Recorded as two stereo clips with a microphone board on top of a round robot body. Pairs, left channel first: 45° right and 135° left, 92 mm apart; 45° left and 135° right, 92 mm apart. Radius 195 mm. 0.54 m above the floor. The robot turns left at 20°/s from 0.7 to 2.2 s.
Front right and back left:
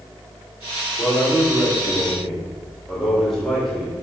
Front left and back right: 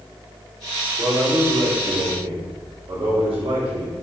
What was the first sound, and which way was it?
A man speaking, 110° right.